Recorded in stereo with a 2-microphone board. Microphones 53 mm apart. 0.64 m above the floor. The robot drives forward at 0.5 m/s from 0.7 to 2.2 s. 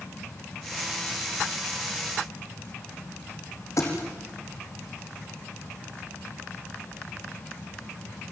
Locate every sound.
3.8 s a thud: 70° left (ahead or behind), 5.5 m